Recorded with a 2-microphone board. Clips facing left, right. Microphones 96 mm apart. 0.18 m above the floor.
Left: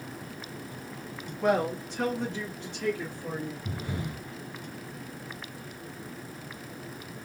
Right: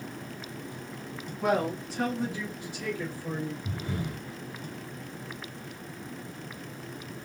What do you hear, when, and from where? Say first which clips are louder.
1.4 s a man speaking: left 1 dB; 10° right (ahead or behind), 1.7 m; by 3.5 s 15° right (ahead or behind), 3 m
3.6 s breathing: right 1 dB; centre (ahead or behind), 3.5 m